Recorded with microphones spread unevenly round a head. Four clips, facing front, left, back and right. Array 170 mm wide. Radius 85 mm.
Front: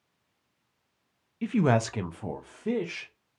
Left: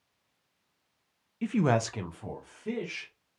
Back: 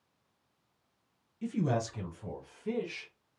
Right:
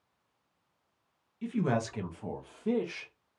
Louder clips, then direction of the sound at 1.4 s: Left 4 dB, front 7 dB; 50° left.